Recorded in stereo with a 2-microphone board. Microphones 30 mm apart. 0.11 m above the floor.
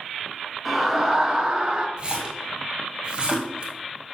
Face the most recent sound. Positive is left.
turn(degrees=-30)  # may be behind; listen again after turning